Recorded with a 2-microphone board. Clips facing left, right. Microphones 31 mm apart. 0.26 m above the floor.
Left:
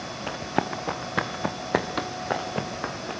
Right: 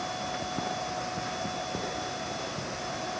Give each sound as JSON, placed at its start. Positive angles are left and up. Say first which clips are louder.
{"t": 0.3, "sound": "running footsteps", "louder": "left 5 dB", "side_deg": 70, "distance_m": 2.5}